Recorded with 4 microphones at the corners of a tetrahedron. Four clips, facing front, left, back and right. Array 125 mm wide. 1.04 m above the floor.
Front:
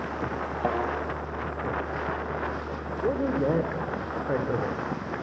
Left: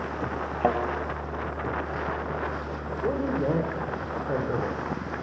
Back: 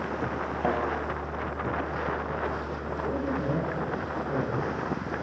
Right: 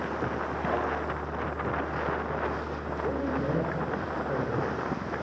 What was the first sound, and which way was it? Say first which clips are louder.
A thud: left 6 dB, even; 75° left.